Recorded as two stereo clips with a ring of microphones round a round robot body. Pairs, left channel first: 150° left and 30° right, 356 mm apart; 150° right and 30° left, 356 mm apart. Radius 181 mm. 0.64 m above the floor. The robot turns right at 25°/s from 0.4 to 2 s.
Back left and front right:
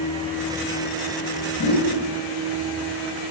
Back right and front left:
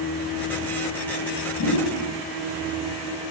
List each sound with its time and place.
1.6 s a whoosh: 160° right, 1.2 m; by 1.9 s 155° right, 1.2 m